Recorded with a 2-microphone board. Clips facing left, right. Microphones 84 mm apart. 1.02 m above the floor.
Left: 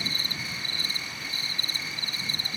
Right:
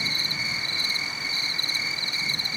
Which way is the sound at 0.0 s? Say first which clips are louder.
Right 3 dB; 50° left (ahead or behind).